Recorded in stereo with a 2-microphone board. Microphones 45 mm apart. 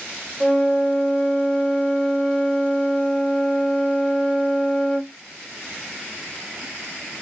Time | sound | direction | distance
0.4 | a flute | 5° right (ahead or behind) | 3 m